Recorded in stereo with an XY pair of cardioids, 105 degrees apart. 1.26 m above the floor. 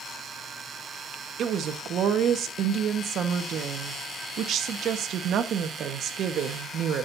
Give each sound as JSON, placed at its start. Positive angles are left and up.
{"t": 1.4, "sound": "a woman speaking", "azimuth_deg": -65, "distance_m": 1.4}